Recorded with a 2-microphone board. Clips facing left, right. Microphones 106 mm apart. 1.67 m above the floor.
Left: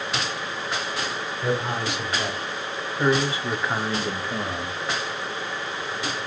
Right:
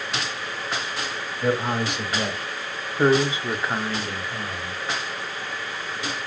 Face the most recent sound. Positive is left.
turn(degrees=65)  # may be behind; listen again after turning